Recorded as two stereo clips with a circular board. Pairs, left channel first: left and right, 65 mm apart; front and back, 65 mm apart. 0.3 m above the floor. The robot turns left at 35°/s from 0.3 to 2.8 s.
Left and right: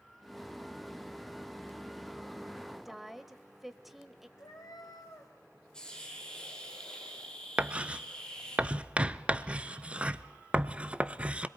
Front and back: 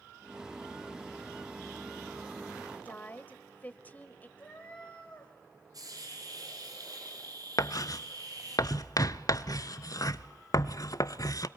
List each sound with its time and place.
2.9 s a woman speaking: 5° right, 1.0 m
4.4 s a cat meowing: 75° left, 3.5 m
5.7 s a hiss: 170° left, 6 m
7.6 s writing: 20° right, 0.6 m